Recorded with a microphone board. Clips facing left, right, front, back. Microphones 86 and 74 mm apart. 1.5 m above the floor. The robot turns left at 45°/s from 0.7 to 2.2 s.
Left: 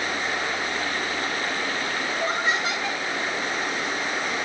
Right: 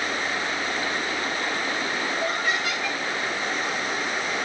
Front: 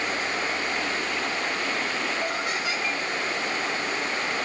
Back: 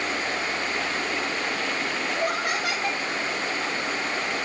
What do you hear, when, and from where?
2.1 s laughter: 155° left, 1.0 m